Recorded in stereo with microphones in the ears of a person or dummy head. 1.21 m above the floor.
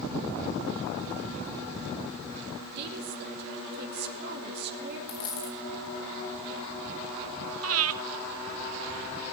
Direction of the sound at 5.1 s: 25° left (ahead or behind).